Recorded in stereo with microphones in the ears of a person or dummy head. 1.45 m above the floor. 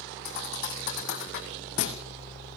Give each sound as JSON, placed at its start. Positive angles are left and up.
{"t": 0.2, "sound": "a thud", "side_deg": 55, "distance_m": 3.5}